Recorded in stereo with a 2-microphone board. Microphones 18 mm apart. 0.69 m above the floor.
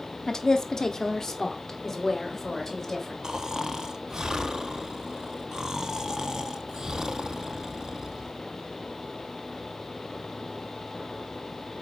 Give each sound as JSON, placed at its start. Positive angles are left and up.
{"t": 0.3, "sound": "a woman speaking", "side_deg": 40, "distance_m": 0.8}
{"t": 3.2, "sound": "snoring", "side_deg": -35, "distance_m": 0.6}